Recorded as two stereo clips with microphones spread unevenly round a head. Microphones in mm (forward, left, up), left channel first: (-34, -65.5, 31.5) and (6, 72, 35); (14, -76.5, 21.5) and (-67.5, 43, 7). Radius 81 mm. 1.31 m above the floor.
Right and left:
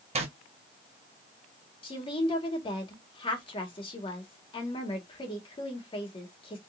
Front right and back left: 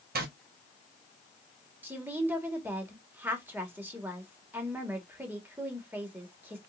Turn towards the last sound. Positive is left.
turn(degrees=-160)